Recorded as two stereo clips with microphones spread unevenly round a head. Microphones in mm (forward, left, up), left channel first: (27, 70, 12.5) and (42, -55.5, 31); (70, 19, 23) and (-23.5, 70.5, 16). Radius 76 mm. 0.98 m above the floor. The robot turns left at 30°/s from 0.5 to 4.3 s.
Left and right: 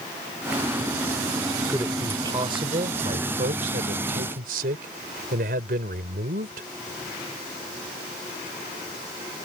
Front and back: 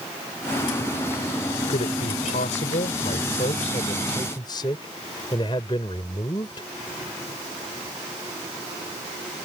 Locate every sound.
1.7 s a man speaking: 10° right; by 6.7 s 90° right